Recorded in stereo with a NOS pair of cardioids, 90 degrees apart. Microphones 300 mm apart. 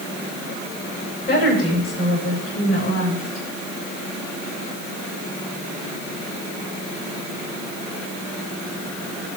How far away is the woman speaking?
About 9 m.